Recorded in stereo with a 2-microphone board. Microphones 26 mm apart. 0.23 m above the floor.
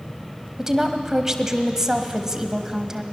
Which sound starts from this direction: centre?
A woman speaking, at 0.6 s.